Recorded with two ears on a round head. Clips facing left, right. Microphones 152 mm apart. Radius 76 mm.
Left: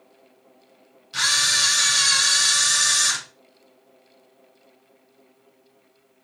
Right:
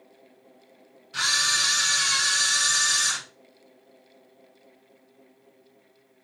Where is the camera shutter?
50° left (ahead or behind), 4 m.